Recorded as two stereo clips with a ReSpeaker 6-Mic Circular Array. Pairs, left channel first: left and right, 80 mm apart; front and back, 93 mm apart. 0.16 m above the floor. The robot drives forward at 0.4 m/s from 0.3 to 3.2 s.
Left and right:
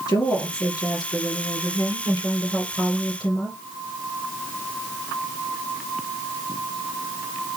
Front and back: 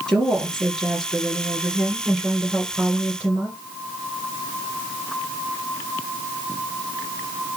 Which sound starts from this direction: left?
A woman speaking, at 0.1 s.